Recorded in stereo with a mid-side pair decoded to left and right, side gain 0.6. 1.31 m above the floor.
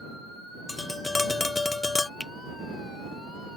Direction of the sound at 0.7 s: 20° left.